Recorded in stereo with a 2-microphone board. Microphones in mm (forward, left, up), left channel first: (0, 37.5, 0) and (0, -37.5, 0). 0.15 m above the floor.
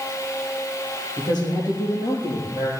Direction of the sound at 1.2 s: 70° left (ahead or behind).